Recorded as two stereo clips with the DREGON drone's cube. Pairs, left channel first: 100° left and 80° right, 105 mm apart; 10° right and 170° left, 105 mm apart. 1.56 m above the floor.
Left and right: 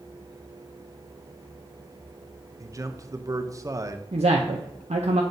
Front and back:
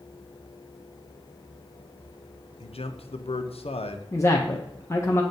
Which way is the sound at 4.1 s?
75° right.